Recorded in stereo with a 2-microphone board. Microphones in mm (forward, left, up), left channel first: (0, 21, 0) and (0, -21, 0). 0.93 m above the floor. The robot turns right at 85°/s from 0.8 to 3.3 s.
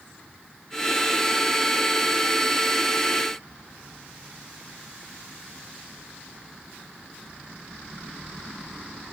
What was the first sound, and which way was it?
Only background noise.